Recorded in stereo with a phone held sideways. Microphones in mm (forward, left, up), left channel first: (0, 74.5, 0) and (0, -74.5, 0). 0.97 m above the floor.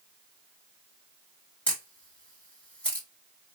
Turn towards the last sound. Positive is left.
turn(degrees=10)  # may be behind; listen again after turning